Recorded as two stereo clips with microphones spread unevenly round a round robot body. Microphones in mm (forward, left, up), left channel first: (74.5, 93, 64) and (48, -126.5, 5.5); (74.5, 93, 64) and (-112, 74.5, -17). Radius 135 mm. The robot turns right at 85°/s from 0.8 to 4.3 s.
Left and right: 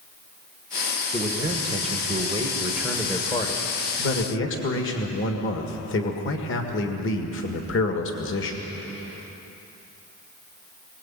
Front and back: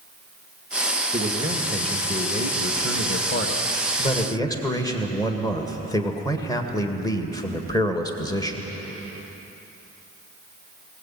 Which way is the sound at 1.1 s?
170° right.